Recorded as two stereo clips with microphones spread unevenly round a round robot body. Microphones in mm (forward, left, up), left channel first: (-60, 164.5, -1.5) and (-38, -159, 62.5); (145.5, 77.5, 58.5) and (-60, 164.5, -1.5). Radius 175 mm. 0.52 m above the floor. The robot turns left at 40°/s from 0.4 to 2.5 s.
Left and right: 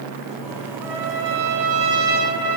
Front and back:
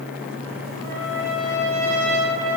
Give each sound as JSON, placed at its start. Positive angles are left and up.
{"t": 0.8, "sound": "a trumpet", "azimuth_deg": -95, "distance_m": 1.8}